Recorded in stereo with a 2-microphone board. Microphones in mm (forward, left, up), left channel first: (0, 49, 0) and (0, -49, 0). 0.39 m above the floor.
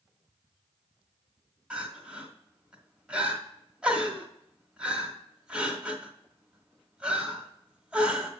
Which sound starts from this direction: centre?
Crying, at 1.7 s.